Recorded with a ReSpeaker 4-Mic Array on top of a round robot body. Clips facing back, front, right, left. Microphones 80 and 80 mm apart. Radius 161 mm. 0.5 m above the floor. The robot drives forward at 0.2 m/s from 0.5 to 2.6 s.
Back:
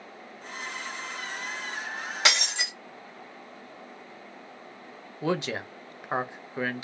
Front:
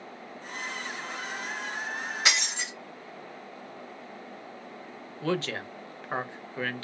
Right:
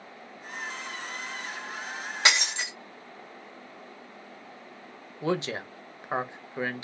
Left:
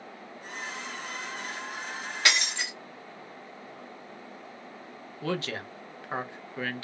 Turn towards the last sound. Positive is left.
turn(degrees=-130)